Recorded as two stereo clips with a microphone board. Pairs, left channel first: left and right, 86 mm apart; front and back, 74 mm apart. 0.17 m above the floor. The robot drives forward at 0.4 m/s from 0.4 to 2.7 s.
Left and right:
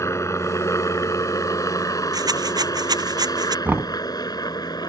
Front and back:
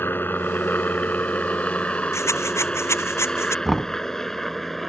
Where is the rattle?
50° right.